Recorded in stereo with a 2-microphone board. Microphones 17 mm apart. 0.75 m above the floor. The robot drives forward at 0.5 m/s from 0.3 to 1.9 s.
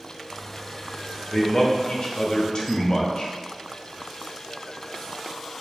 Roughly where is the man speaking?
Left.